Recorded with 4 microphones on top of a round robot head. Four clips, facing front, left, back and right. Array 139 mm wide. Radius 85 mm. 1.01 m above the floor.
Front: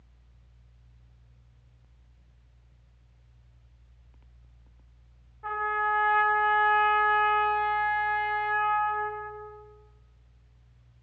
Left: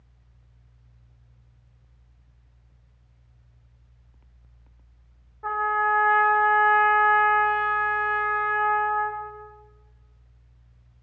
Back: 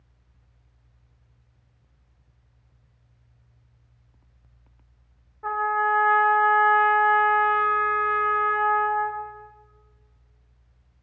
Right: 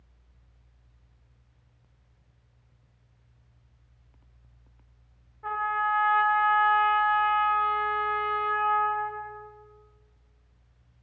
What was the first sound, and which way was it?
A trumpet, 135° left.